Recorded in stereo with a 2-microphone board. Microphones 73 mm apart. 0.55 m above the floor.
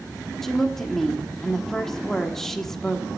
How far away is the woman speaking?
About 1.3 m.